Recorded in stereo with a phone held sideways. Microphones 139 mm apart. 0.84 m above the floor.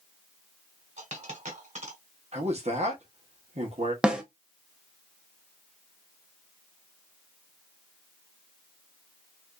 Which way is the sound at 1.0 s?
55° right (ahead or behind).